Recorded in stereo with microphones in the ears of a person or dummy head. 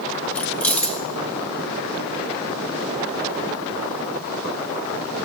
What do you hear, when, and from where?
0.3 s keys jangling: 5° left (ahead or behind), 1.5 m